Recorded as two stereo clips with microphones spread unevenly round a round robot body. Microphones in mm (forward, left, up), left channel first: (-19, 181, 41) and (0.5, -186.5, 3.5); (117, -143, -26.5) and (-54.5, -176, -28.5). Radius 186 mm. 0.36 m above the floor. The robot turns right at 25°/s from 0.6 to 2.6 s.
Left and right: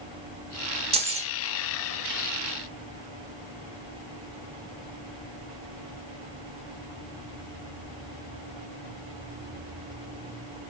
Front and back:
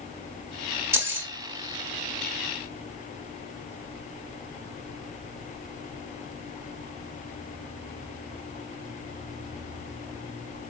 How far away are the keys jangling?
About 0.7 m.